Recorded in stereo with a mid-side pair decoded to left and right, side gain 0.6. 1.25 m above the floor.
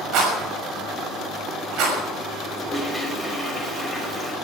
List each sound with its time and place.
0.1 s a rattle: 65° right, 6.5 m
2.5 s a toilet flushing: 10° right, 4.5 m